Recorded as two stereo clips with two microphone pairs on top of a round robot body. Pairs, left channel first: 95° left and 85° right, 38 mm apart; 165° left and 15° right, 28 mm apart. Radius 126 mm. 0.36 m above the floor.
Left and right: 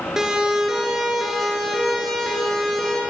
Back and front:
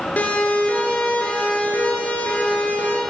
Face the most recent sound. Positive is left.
turn(degrees=175)